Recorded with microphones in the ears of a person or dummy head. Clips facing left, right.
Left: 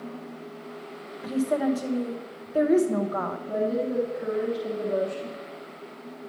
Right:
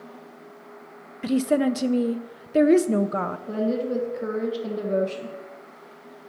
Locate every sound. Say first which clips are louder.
1.2 s a woman speaking: right 3 dB; 30° right (ahead or behind), 0.5 m
3.5 s a woman speaking: right 1 dB; 35° right (ahead or behind), 1.2 m